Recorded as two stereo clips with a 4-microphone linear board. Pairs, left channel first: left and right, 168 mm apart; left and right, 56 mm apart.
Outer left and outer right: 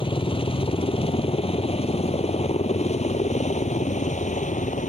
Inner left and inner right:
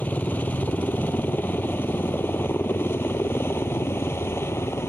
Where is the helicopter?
30° left (ahead or behind); by 4.9 s 45° left (ahead or behind).